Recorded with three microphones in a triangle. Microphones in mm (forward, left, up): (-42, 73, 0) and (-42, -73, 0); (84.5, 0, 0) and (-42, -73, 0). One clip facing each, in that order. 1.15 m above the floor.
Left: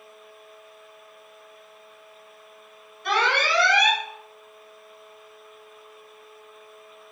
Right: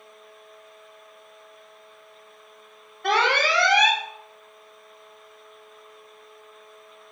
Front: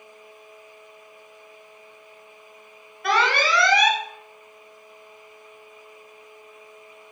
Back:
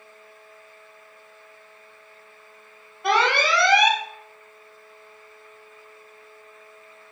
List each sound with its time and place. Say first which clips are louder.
3.0 s an alarm: right 2 dB, back 1 dB; 85° right, 4 m